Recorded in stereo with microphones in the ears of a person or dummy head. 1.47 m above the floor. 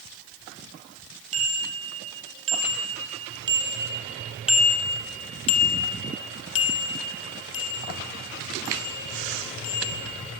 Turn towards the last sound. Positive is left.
turn(degrees=70)  # may be behind; listen again after turning